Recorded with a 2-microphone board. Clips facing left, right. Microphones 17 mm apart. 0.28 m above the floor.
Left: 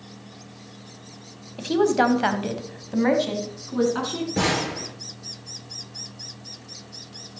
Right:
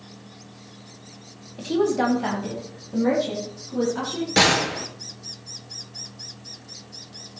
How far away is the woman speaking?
About 1.8 m.